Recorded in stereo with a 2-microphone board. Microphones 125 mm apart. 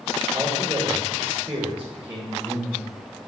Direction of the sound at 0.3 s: 30° right (ahead or behind).